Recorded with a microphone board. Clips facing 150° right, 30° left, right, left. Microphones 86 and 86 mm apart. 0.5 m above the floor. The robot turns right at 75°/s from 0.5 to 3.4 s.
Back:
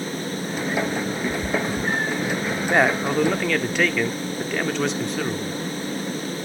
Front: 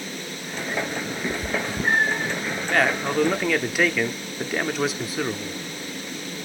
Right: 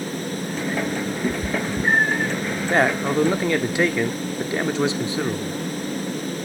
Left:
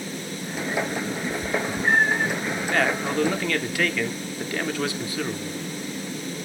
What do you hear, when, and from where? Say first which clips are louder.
1.2 s a cat meowing: back 1 dB, right 3 dB; 65° right, 0.9 m; by 2.3 s 15° left, 0.9 m
2.7 s a man speaking: back 2 dB, right 4 dB; 105° right, 0.8 m; by 5.6 s 55° right, 0.8 m